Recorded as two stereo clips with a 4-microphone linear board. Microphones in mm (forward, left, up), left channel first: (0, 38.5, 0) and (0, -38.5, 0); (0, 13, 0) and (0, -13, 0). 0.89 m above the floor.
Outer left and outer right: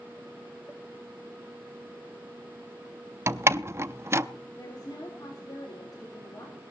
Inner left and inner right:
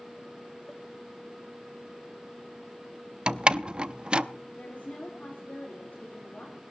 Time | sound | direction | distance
3.3 | a door slam | 35° right (ahead or behind) | 0.6 m
4.6 | a woman speaking | 60° left (ahead or behind) | 3 m